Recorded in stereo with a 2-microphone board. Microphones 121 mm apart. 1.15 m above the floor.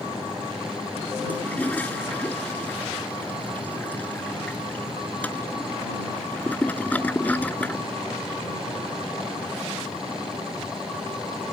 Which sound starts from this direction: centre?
A toilet flushing, at 1.3 s.